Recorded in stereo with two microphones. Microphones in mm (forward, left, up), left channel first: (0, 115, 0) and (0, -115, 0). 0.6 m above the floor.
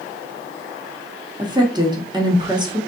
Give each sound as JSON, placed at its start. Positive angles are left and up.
{"t": 1.4, "sound": "a woman speaking", "side_deg": -20, "distance_m": 0.7}